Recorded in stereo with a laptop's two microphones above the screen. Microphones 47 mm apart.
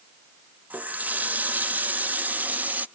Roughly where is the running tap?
Right.